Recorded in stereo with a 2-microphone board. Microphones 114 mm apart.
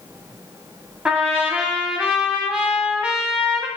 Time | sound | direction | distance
1.1 | a trumpet | 10° right (ahead or behind) | 0.5 m